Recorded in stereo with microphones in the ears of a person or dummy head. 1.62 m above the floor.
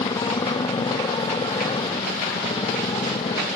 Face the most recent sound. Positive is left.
turn(degrees=20)  # may be behind; listen again after turning